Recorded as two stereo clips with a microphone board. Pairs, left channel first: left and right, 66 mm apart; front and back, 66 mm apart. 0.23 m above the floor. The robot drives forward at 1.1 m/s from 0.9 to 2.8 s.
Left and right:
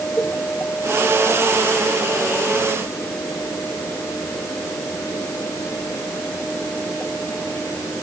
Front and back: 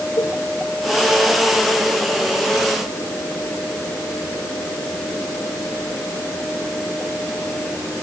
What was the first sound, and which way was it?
A cowbell, 25° left.